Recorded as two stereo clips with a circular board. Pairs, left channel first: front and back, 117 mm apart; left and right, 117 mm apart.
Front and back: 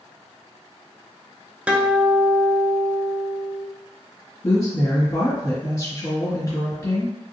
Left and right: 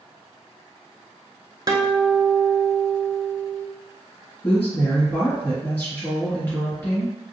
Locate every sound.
1.7 s a guitar: 110° right, 0.6 m
4.4 s a woman speaking: 30° left, 1.7 m